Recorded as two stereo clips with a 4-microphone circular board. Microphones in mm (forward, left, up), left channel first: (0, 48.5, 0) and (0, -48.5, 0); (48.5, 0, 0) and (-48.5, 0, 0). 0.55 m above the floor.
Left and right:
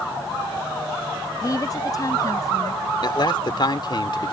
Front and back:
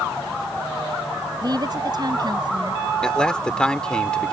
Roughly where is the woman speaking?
Behind left.